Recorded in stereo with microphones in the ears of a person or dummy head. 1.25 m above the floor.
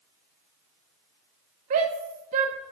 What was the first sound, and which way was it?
A shout, 40° right (ahead or behind).